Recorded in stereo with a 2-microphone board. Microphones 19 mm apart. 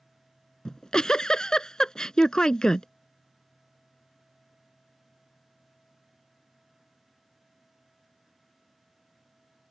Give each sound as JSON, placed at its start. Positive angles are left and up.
{"t": 0.7, "sound": "a giggle", "side_deg": 40}